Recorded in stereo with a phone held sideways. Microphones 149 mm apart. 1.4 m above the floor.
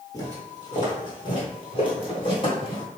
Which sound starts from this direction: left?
Footsteps, at 0.1 s.